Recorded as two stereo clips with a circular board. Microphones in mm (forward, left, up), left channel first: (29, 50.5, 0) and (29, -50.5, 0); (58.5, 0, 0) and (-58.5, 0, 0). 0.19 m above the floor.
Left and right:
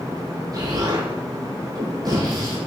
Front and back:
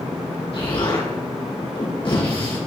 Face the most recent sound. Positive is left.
turn(degrees=-40)